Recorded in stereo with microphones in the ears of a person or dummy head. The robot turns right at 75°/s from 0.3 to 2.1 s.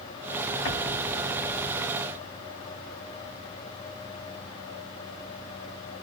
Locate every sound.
0.7 s an explosion: 30° left (ahead or behind), 1.9 m; by 1.8 s 45° right (ahead or behind), 1.9 m